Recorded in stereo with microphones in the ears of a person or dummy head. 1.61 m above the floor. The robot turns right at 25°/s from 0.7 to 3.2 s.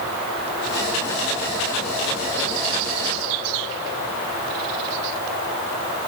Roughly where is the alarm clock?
No alarm clock in this recording.